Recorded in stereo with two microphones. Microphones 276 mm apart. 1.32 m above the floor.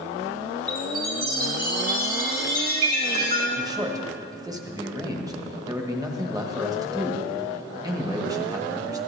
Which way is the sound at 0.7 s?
35° right (ahead or behind).